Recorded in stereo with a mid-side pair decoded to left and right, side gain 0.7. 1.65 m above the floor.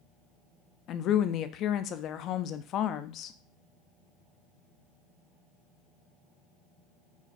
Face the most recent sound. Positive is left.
turn(degrees=50)